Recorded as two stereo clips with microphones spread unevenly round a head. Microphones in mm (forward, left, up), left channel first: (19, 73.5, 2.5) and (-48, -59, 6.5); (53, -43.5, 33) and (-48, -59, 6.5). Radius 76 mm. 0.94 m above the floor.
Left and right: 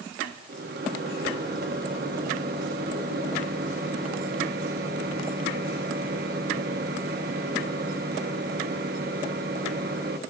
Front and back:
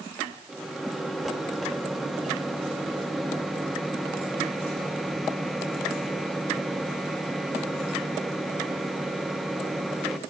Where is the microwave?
85° right, 1.3 m.